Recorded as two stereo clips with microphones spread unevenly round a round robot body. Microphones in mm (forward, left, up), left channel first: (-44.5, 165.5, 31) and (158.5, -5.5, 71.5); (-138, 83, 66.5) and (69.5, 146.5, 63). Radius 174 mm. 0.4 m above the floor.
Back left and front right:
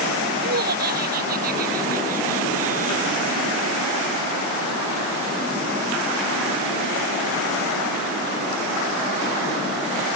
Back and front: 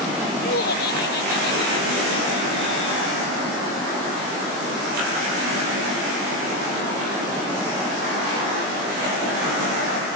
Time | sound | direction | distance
0.4 | laughter | 105° right | ?